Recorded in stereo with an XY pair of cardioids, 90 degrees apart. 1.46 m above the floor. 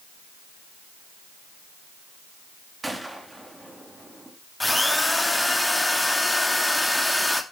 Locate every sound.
2.8 s a gunshot: 15° right, 3 m
4.6 s a drill: 10° left, 2.5 m